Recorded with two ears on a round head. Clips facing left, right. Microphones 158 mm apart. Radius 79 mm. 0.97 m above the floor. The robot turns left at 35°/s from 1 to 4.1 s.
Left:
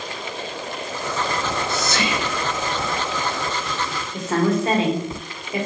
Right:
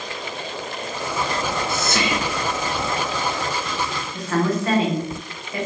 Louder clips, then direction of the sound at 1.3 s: Even; 45° right (ahead or behind).